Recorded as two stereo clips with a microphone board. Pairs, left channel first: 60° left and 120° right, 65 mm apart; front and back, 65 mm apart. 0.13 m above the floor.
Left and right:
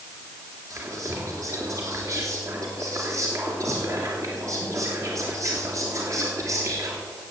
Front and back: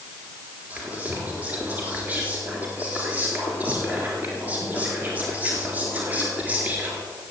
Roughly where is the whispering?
Behind right.